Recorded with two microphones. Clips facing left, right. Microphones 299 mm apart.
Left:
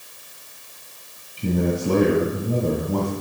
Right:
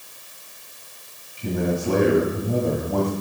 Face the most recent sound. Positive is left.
turn(degrees=45)  # may be behind; listen again after turning